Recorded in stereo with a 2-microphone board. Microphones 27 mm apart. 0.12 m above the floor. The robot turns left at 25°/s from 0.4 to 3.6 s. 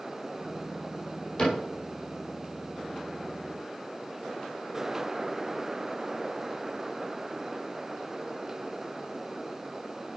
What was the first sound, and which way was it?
A cupboard door, 45° left (ahead or behind).